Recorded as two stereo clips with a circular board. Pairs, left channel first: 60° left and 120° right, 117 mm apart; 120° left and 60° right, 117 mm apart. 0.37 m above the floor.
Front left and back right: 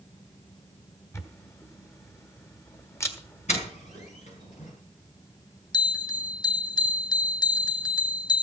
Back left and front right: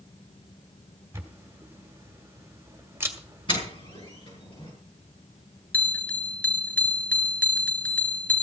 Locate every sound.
1.1 s a camera shutter: straight ahead, 1.8 m
3.5 s a doorbell: 75° left, 7 m
5.7 s a bell: 50° left, 0.6 m